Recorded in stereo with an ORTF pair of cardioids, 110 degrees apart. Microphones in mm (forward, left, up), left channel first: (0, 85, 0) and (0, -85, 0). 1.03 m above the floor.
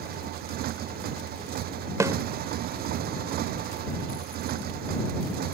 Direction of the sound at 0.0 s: 70° right.